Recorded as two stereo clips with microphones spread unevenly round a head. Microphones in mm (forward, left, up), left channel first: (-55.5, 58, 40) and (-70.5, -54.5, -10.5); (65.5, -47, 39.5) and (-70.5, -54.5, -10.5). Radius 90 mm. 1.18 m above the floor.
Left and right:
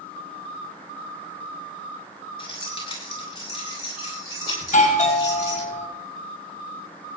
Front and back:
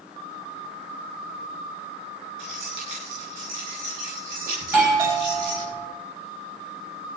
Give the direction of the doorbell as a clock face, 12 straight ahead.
8 o'clock.